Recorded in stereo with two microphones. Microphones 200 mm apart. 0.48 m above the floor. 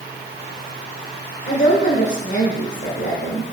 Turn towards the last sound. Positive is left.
turn(degrees=55)  # may be behind; listen again after turning